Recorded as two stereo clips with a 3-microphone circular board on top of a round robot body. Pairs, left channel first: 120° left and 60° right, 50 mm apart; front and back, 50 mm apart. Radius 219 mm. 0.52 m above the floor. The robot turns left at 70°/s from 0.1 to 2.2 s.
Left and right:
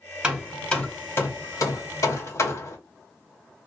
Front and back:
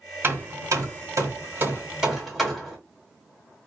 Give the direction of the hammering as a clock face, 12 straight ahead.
4 o'clock.